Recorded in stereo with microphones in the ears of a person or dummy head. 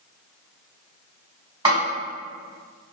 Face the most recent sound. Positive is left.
turn(degrees=-25)  # may be behind; listen again after turning